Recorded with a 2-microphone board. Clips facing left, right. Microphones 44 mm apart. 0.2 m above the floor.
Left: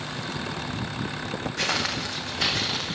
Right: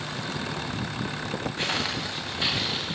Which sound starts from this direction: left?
Footsteps, at 1.6 s.